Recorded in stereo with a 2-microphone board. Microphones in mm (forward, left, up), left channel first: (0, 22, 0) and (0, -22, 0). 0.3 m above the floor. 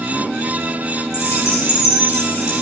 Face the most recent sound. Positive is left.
turn(degrees=80)